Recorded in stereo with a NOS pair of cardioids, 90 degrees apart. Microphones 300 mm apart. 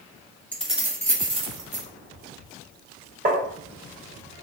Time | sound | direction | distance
0.5 | keys jangling | 5° left | 0.8 m
3.2 | tapping | 30° right | 1.0 m